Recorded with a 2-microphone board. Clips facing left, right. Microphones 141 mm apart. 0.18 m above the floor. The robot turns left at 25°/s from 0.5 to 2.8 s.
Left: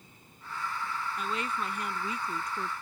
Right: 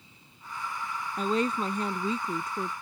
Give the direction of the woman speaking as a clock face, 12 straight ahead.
4 o'clock.